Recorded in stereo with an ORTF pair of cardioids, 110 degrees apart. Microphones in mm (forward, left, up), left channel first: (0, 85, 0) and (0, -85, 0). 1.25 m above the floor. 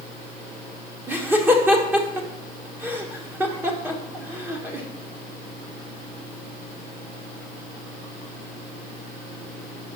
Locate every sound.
1.1 s laughter: 10° right, 1.4 m